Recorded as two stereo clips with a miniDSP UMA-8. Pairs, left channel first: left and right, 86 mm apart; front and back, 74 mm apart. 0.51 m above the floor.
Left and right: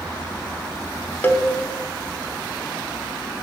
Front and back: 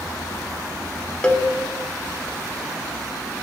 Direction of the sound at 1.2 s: 55° left.